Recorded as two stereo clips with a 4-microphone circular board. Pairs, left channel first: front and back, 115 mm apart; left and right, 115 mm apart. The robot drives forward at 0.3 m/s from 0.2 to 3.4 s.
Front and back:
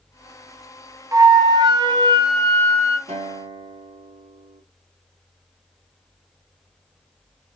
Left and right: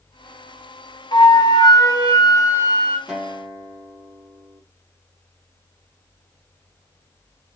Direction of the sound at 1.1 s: 125° left.